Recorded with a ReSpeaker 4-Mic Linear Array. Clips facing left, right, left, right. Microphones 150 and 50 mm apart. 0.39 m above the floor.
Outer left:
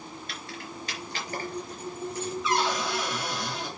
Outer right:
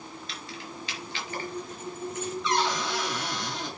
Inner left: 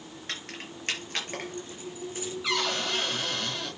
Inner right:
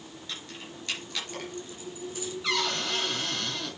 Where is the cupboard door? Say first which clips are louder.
Even, even; 5° left (ahead or behind), 5.5 m.